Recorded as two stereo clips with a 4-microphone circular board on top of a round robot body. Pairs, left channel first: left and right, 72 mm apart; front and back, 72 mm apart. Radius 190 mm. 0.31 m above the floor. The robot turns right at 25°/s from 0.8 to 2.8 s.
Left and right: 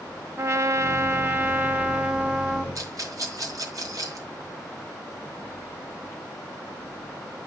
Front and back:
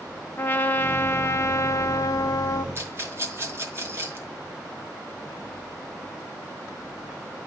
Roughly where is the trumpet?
Ahead right.